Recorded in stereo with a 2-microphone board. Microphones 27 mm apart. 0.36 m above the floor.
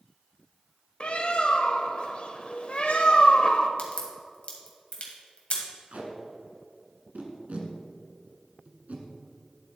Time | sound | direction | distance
1.0 | a bird | 45° left (ahead or behind) | 0.7 m
3.8 | a crack | 55° left (ahead or behind) | 1.9 m
5.9 | tape being pulled | 70° right (ahead or behind) | 1.4 m